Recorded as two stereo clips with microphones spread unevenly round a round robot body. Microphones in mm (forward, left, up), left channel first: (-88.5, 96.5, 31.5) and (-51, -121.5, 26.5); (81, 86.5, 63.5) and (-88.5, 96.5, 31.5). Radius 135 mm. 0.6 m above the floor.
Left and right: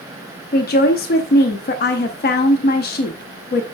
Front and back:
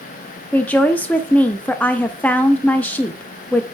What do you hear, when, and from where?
0.5 s a woman speaking: 85° left, 0.7 m